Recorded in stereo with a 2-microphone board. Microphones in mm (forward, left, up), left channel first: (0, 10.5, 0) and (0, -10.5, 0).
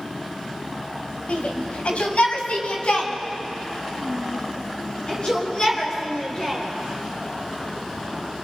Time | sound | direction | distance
1.3 | a shout | 70° left (ahead or behind) | 2 m